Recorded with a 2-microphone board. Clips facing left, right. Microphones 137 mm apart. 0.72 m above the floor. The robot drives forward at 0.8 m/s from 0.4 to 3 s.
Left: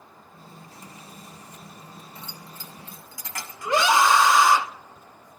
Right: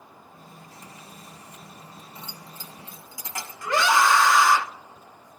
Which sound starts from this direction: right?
Keys jangling, at 2.1 s.